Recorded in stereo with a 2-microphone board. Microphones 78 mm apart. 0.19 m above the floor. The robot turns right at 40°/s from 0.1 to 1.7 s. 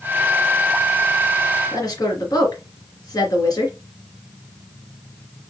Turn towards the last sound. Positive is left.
turn(degrees=50)  # may be behind; listen again after turning